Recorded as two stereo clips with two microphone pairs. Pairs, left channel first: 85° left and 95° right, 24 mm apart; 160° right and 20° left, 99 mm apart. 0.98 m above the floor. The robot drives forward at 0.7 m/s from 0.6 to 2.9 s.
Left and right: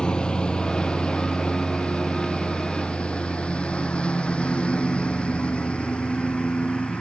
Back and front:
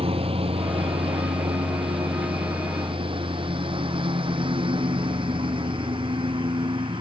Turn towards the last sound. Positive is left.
turn(degrees=50)